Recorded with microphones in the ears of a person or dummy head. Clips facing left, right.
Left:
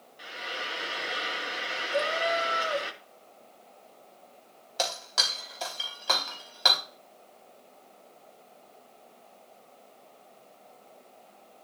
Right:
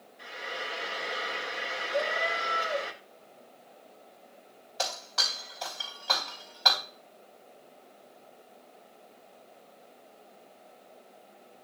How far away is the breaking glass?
About 3.5 m.